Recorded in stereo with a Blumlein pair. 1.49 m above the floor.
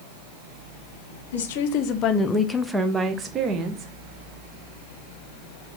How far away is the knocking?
No knocking in this recording.